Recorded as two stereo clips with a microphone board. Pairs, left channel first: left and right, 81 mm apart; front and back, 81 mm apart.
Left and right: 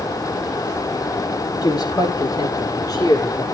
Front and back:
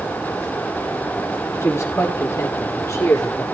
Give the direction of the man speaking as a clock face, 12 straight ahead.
10 o'clock.